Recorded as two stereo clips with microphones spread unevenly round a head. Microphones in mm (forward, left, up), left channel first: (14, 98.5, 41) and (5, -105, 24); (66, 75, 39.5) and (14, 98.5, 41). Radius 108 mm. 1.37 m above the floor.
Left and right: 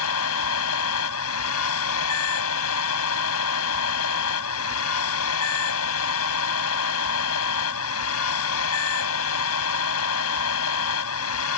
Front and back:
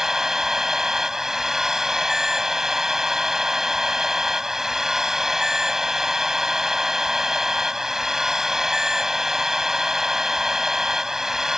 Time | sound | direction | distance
0.0 | a machine running | 75° left | ?